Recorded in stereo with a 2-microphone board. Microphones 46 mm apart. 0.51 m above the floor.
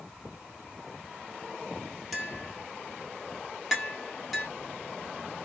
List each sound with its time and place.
2.1 s tapping: 5° left (ahead or behind), 1.8 m